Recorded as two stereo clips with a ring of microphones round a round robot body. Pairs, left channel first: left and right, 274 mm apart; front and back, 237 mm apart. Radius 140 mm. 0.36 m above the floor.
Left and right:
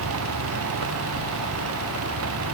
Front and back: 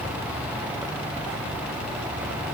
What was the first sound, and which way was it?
Only background noise.